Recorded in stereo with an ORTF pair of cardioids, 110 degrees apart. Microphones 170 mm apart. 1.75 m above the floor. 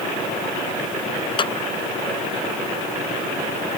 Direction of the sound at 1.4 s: 30° left.